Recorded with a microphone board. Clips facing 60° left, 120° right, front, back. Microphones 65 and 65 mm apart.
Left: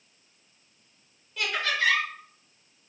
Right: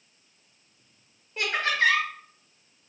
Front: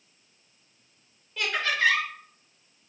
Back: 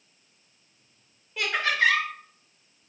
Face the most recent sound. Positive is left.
turn(degrees=-115)